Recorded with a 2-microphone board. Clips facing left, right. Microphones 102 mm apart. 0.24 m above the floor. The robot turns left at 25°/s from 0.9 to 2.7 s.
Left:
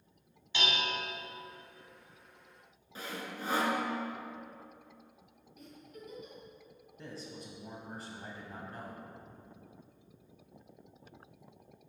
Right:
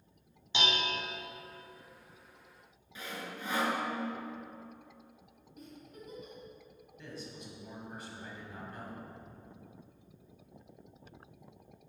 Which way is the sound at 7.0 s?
35° left (ahead or behind).